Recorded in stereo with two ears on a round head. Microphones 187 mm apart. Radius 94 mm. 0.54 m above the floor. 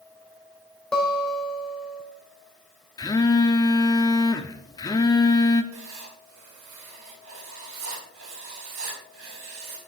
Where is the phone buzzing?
20° left (ahead or behind), 0.9 m.